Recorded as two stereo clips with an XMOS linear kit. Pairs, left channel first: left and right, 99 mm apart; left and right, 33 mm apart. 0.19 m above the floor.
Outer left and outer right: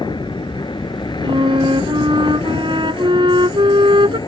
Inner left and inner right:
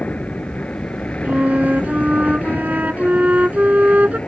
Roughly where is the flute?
Right.